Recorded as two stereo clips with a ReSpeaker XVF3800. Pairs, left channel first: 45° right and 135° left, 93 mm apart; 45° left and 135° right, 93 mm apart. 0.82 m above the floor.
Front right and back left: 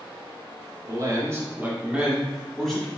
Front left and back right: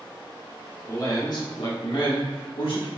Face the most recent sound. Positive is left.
turn(degrees=40)